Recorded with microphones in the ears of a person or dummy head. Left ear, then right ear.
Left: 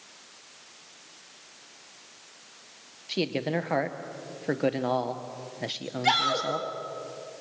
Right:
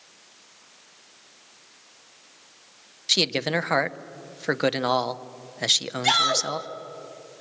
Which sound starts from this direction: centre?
A shout, at 6.0 s.